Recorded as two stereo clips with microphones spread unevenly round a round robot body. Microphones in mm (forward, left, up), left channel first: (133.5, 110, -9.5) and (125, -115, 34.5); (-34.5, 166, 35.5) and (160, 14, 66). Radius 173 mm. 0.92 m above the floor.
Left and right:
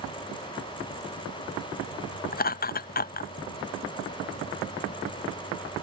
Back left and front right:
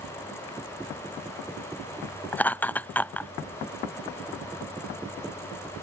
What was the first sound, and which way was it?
Laughter, 65° left.